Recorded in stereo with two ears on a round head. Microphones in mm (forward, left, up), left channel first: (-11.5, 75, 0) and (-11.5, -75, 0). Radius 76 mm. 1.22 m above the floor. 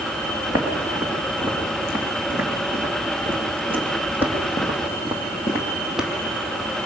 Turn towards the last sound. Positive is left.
turn(degrees=-5)  # may be behind; listen again after turning